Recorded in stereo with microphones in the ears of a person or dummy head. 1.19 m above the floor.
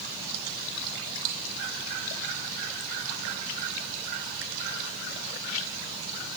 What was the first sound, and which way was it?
Only background noise.